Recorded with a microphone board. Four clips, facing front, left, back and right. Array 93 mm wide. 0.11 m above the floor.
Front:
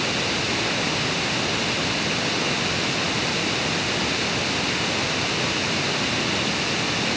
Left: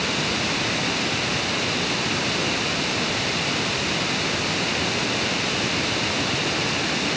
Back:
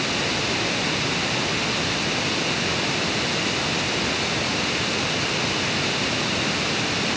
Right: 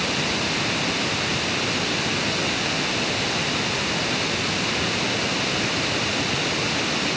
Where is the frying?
I don't hear frying.